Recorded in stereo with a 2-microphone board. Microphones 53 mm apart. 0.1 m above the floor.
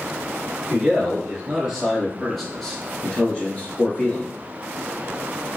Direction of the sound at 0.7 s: 15° right (ahead or behind).